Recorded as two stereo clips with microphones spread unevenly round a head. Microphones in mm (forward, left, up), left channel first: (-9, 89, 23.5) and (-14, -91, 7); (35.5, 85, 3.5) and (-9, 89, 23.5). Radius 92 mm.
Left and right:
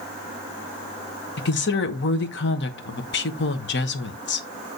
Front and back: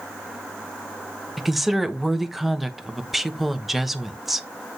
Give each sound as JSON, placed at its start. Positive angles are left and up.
{"t": 1.4, "sound": "a woman speaking", "azimuth_deg": 75, "distance_m": 1.1}